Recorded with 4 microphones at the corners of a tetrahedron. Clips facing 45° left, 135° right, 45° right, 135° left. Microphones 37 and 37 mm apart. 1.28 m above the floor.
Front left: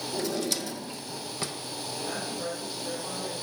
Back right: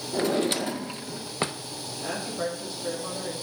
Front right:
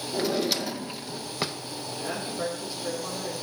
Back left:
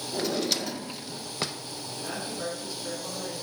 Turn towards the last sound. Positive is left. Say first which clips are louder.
# back right 4 dB, front right 3 dB
turn(degrees=-125)